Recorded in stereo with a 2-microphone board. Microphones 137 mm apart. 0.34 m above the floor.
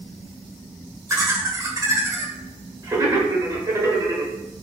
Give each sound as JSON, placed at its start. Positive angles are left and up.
{"t": 1.1, "sound": "laughter", "side_deg": -25, "distance_m": 0.9}